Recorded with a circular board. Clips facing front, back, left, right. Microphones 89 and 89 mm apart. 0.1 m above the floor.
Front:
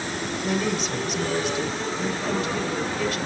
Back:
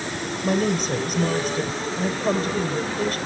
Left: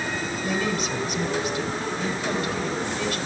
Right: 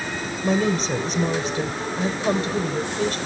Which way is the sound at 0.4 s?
135° right.